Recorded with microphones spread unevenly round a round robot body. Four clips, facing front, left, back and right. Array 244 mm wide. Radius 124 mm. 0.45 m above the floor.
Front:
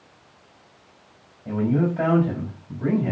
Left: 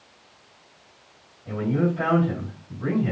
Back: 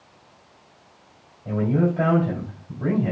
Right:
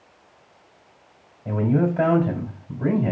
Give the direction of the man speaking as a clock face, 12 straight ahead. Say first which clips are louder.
Right 3 dB, even; 4 o'clock.